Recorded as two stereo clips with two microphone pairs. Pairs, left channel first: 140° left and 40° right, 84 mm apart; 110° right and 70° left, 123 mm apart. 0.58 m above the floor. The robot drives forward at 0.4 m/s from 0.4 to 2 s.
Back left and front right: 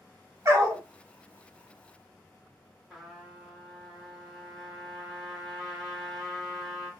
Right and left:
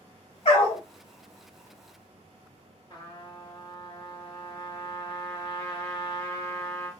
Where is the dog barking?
90° right, 1.1 m; by 0.8 s 100° right, 1.1 m.